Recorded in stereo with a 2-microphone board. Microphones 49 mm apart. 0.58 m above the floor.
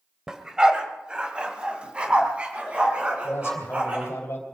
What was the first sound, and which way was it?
A dog barking, 15° right (ahead or behind).